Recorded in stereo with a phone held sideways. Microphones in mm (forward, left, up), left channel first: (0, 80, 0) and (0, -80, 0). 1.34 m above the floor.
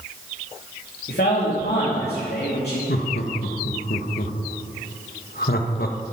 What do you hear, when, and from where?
1.1 s a man speaking: 85° left, 3 m
2.9 s laughter: 70° left (ahead or behind), 1.3 m